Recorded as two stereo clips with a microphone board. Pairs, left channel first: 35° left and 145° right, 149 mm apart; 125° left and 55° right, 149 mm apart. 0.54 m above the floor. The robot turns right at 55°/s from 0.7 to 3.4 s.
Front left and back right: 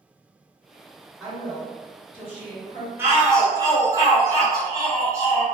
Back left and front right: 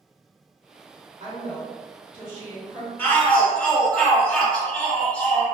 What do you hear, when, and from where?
1.2 s a woman speaking: 60° right, 1.1 m; by 2.9 s 30° left, 1.1 m
3.0 s a shout: 175° left, 0.9 m; by 5.4 s 165° right, 0.9 m